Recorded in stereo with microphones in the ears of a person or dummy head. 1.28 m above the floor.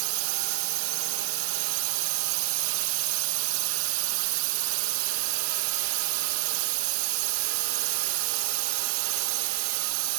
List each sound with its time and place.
0.0 s a drone: 65° right (ahead or behind)